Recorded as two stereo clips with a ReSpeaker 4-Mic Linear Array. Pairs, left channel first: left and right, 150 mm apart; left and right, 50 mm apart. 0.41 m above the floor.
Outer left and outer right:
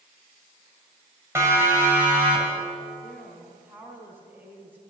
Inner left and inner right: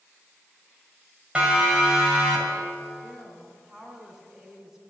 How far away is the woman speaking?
About 4 m.